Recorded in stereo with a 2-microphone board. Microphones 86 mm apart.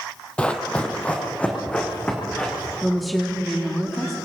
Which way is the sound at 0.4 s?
15° left (ahead or behind).